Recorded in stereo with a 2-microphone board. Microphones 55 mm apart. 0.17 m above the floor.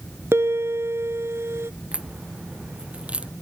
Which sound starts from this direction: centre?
A crack, at 1.9 s.